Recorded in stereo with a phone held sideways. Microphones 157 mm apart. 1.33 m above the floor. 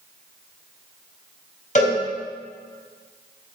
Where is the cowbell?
55° left (ahead or behind), 2.5 m.